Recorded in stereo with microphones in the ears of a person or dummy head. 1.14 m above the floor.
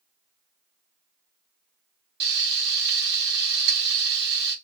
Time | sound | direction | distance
2.2 | frying | 65° right (ahead or behind) | 1.4 m